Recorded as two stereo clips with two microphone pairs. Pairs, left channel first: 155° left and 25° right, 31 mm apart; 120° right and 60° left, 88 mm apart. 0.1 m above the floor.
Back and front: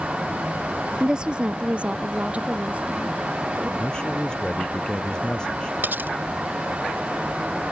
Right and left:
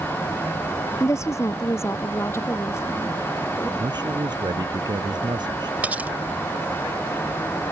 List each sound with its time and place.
1.0 s a woman speaking: 80° right; by 3.7 s 60° right
3.8 s a man speaking: 95° left
5.8 s cutlery clinking: 15° right